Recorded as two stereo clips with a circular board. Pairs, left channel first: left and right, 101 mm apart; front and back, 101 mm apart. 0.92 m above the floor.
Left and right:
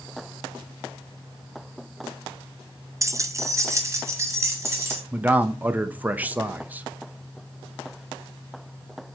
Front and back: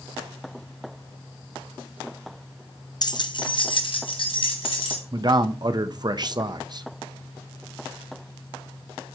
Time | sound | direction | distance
3.0 | keys jangling | 35° right | 0.5 m
5.1 | a man speaking | 160° right | 0.6 m